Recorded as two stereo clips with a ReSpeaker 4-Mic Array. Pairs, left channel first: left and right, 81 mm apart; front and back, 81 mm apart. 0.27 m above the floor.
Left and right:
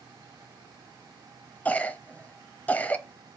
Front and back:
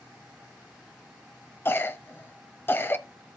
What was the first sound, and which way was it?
A cough, 35° left.